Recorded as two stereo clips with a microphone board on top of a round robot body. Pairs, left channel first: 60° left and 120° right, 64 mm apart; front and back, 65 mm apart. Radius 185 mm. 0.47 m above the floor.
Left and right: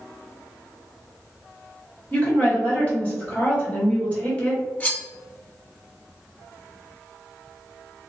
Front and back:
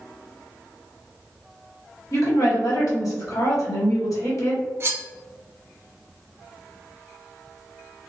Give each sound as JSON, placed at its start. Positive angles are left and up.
{"t": 2.1, "sound": "a woman speaking", "azimuth_deg": -5, "distance_m": 1.9}
{"t": 4.8, "sound": "cutlery clinking", "azimuth_deg": 130, "distance_m": 0.6}